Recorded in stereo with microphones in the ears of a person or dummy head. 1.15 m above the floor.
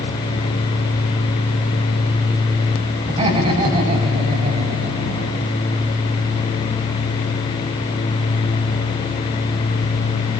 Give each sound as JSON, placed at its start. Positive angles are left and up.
{"t": 3.1, "sound": "laughter", "side_deg": -35, "distance_m": 5.5}